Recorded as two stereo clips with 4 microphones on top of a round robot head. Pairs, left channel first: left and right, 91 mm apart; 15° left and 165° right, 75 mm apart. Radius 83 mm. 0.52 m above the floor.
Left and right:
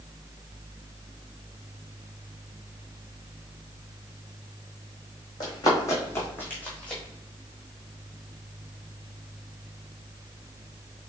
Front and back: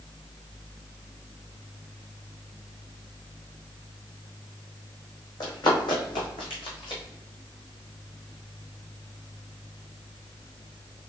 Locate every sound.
5.4 s running footsteps: 45° left, 1.7 m; by 7.0 s 10° left, 1.6 m